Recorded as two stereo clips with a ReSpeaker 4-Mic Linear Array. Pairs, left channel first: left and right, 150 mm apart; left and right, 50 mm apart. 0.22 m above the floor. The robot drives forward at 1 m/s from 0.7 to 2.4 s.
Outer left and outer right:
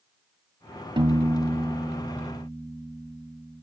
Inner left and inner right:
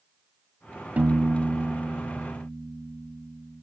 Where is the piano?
35° right (ahead or behind), 0.5 m; by 3.6 s 10° right (ahead or behind), 1.7 m.